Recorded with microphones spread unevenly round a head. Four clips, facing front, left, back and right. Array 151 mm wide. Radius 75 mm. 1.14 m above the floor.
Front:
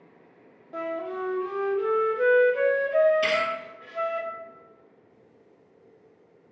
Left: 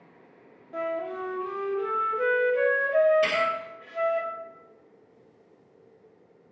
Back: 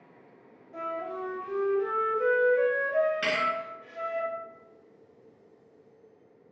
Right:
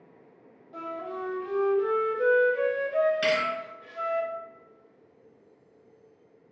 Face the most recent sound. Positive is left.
turn(degrees=-130)